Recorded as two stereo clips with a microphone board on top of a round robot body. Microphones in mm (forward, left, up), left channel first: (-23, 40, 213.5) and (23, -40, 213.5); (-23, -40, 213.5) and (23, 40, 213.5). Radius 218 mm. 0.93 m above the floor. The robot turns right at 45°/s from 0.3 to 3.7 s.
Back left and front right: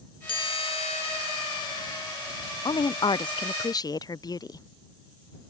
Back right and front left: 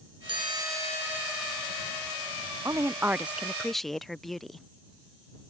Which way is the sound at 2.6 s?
105° left.